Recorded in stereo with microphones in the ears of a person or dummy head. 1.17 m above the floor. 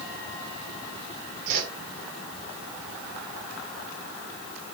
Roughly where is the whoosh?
Right.